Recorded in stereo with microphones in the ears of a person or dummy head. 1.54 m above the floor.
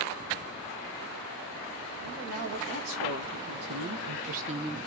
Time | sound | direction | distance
2.0 | a woman speaking | 75° right (ahead or behind) | 2.5 m